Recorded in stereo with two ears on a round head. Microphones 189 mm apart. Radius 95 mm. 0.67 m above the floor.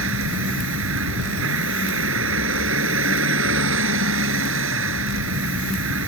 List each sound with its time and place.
0.0 s a vehicle: 60° right (ahead or behind)